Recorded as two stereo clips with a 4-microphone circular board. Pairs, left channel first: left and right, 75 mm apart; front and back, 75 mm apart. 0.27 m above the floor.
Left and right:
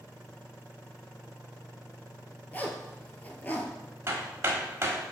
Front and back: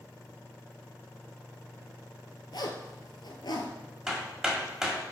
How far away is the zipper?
About 0.9 m.